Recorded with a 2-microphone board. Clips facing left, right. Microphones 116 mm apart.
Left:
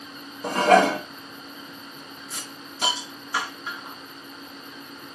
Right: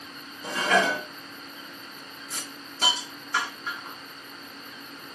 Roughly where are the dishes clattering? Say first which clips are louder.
Left 7 dB; left.